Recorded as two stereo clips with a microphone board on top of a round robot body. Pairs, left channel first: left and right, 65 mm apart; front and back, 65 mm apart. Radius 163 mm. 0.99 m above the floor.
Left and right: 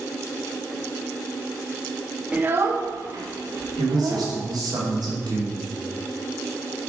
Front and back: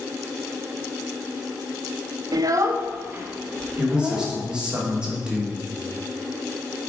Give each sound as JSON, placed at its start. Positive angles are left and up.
{"t": 2.3, "sound": "a child speaking", "azimuth_deg": -160, "distance_m": 0.8}
{"t": 3.8, "sound": "a man speaking", "azimuth_deg": -105, "distance_m": 2.5}